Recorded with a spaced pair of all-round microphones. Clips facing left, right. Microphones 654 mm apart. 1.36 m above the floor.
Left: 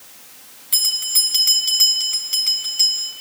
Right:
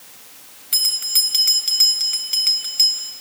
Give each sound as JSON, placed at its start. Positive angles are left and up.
{"t": 0.7, "sound": "a bell", "side_deg": 65, "distance_m": 4.5}